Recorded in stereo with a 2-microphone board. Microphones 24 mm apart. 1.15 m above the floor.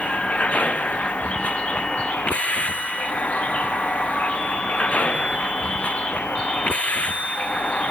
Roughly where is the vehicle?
Left.